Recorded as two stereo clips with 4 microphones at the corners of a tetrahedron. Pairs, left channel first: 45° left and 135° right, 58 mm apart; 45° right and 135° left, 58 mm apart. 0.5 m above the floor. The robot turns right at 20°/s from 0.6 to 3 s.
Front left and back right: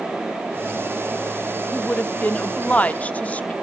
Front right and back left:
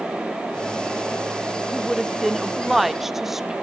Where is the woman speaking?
35° left, 0.7 m; by 3.5 s 60° left, 0.7 m.